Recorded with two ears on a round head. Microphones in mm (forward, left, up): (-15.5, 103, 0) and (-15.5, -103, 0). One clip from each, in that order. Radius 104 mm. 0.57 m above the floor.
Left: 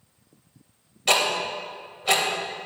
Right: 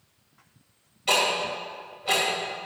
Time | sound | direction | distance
1.1 | ticking | 30° left (ahead or behind) | 2.5 m